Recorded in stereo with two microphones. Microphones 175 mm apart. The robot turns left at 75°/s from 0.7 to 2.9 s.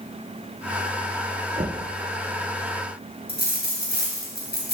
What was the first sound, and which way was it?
Knocking, 45° right (ahead or behind).